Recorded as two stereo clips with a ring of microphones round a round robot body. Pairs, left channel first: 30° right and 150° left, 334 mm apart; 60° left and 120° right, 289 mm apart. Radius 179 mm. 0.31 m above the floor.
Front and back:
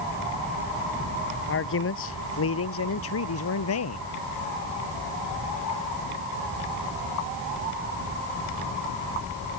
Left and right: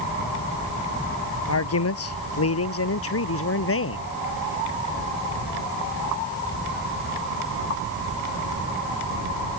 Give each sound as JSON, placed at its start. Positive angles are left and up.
{"t": 1.5, "sound": "a man speaking", "azimuth_deg": 25}